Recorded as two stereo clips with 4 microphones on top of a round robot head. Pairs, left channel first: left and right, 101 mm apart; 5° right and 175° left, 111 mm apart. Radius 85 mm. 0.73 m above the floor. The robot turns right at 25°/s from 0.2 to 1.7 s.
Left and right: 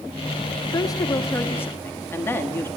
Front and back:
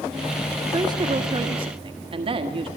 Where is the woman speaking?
130° left, 1.5 m; by 2.7 s 155° left, 1.5 m.